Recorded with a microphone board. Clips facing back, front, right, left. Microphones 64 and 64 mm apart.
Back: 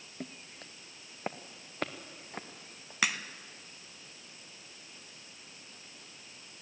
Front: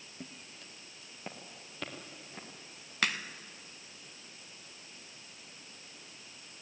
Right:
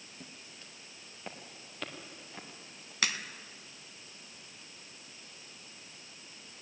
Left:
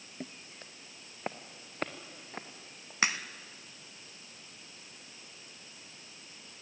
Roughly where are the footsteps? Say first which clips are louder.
Back 5 dB, left 8 dB; behind left.